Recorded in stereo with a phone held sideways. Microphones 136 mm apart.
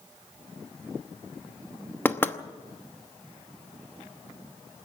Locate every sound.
2.0 s knocking: 15° left (ahead or behind), 0.9 m